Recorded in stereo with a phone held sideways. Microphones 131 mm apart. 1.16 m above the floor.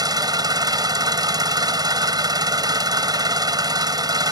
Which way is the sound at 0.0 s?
30° right (ahead or behind).